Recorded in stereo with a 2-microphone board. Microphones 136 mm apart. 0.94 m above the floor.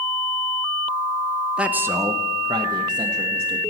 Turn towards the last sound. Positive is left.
turn(degrees=-35)  # may be behind; listen again after turning